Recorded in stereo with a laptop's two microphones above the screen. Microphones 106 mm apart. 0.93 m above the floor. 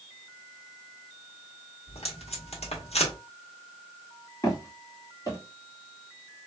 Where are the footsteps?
35° left (ahead or behind), 1.3 m.